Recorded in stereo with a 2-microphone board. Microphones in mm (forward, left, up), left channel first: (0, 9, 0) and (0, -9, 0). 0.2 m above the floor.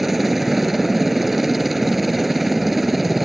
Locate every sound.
0.0 s a helicopter: 10° right (ahead or behind); by 3.3 s 5° right (ahead or behind)